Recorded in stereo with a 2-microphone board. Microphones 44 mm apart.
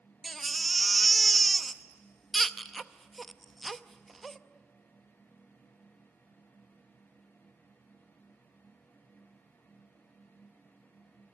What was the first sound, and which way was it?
A baby crying, 5° left (ahead or behind).